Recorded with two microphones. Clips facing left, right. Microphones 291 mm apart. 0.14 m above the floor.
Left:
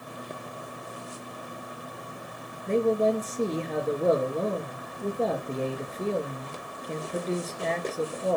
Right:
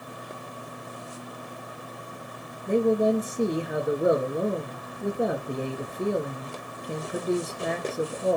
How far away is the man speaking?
About 1.9 m.